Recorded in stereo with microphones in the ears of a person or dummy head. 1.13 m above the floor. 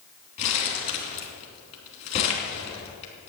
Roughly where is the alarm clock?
No alarm clock in this recording.